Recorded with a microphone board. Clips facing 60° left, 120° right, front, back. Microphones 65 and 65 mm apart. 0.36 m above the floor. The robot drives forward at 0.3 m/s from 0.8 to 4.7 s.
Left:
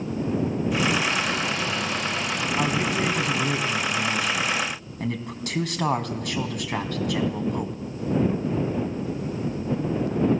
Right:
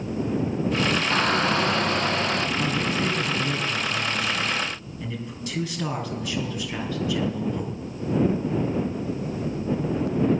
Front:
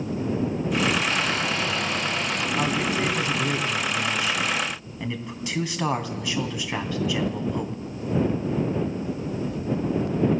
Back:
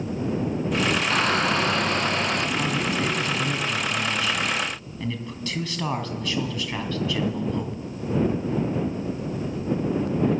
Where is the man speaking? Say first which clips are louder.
Left 1 dB, front 1 dB; 65° left, 3.5 m; by 7.8 s 75° left, 3 m.